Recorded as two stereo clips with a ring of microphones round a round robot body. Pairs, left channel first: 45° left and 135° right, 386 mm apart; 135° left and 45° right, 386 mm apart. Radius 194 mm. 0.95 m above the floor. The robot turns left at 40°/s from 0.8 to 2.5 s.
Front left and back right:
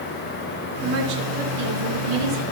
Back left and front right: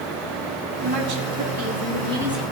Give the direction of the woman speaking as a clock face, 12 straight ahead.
2 o'clock.